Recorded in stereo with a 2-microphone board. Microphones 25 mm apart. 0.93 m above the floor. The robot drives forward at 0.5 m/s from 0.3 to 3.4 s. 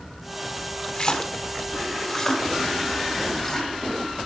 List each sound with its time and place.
0.9 s a splash: 35° left (ahead or behind), 0.6 m; by 3.7 s 15° left (ahead or behind), 1.5 m